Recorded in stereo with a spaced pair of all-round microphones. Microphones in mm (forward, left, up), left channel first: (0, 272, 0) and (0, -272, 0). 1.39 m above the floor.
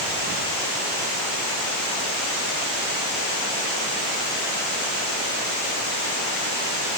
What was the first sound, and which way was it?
Only background noise.